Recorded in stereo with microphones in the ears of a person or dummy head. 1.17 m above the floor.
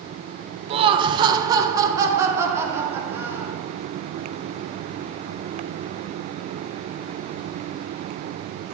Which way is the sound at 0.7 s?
35° right (ahead or behind).